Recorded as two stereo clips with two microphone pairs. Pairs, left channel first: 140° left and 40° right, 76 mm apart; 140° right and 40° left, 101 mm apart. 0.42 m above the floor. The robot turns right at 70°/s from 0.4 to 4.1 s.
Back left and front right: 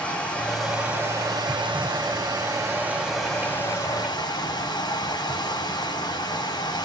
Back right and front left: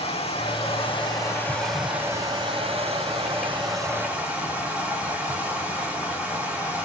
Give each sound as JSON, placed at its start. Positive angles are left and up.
{"t": 0.0, "sound": "running water", "azimuth_deg": -145, "distance_m": 3.5}